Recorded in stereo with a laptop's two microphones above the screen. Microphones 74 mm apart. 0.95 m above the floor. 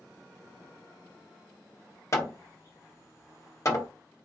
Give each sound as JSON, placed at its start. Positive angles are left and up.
{"t": 2.1, "sound": "hammering", "side_deg": 40, "distance_m": 0.7}